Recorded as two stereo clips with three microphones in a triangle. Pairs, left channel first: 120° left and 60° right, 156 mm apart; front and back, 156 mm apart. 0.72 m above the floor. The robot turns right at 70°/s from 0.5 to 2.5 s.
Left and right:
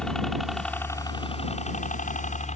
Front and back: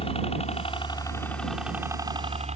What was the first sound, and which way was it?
A helicopter, 35° left.